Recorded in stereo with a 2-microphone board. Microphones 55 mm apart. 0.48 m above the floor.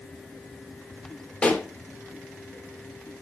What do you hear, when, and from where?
1.4 s a pop: 20° left (ahead or behind), 1.7 m